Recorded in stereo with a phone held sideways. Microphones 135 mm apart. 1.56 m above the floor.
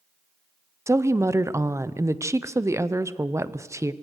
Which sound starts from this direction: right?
A woman speaking, at 0.9 s.